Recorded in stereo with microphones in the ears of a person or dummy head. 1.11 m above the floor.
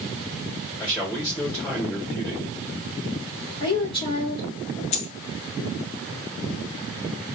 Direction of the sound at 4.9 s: 35° left (ahead or behind).